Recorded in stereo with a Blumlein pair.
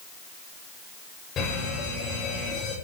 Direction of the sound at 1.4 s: 25° left.